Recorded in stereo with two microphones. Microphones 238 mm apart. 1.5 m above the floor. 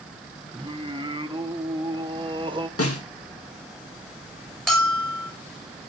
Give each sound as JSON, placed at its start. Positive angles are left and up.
{"t": 0.5, "sound": "singing", "side_deg": -20, "distance_m": 0.7}
{"t": 2.8, "sound": "a snare drum", "side_deg": 65, "distance_m": 1.9}
{"t": 4.7, "sound": "a bell", "side_deg": 0, "distance_m": 2.5}